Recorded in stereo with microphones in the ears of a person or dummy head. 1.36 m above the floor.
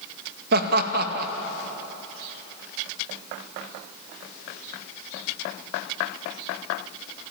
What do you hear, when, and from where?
0.5 s laughter: 60° right (ahead or behind), 1.9 m